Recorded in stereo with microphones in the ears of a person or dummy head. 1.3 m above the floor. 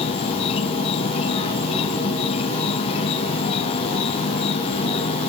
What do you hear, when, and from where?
0.0 s an insect: 35° left (ahead or behind)